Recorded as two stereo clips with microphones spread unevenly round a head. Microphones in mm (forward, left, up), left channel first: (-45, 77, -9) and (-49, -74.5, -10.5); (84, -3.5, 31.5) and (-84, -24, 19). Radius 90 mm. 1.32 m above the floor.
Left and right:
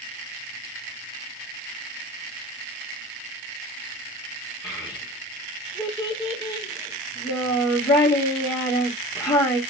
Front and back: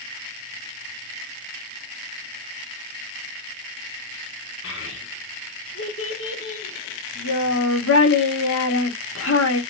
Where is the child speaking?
15° left, 1.8 m.